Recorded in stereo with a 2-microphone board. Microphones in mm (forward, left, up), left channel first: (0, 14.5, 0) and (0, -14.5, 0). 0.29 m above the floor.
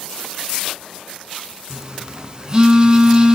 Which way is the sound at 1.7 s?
25° right (ahead or behind).